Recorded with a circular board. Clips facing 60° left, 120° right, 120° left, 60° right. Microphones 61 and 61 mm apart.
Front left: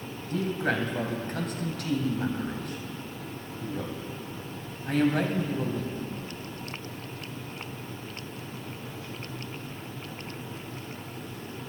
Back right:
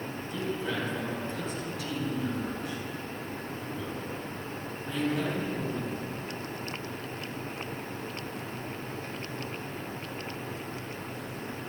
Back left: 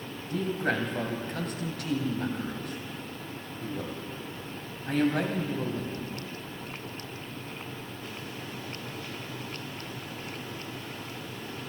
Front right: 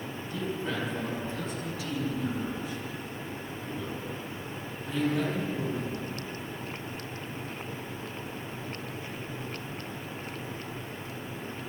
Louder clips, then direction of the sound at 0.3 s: Front left 5 dB, back left 5 dB; 90° left.